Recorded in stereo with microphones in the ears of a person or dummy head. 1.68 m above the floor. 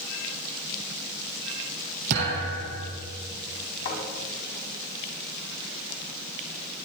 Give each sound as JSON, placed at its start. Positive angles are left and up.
{"t": 2.1, "sound": "a thud", "side_deg": -60, "distance_m": 5.5}
{"t": 3.9, "sound": "a thud", "side_deg": 65, "distance_m": 6.0}